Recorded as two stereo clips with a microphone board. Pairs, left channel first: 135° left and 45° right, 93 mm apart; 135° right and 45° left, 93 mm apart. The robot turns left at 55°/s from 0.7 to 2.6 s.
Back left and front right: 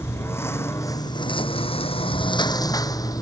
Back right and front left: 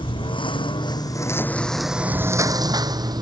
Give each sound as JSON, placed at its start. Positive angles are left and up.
{"t": 0.0, "sound": "a lawn mower", "azimuth_deg": -160}